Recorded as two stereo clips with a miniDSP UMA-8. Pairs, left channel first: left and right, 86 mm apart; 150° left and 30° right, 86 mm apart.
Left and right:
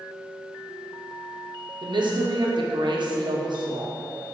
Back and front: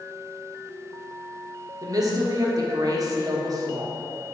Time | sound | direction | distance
1.8 | a woman speaking | 75° right | 0.5 m